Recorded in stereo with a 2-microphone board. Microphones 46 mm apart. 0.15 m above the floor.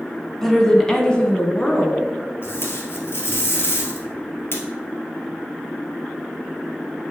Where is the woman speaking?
5° left (ahead or behind), 1.1 m; by 2.0 s 25° left (ahead or behind), 1.4 m.